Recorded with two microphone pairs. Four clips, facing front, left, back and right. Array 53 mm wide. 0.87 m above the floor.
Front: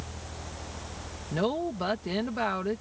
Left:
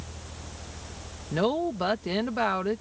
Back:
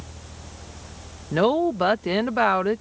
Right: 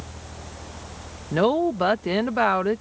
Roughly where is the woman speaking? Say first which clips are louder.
Right 6 dB, back 9 dB; behind right.